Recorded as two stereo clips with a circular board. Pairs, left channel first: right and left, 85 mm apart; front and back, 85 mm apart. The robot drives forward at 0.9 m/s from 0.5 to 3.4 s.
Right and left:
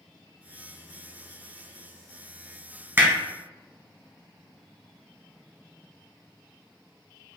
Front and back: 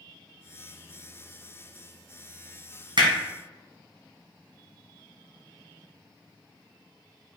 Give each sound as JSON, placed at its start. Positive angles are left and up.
{"t": 3.0, "sound": "hammering", "azimuth_deg": 155, "distance_m": 2.5}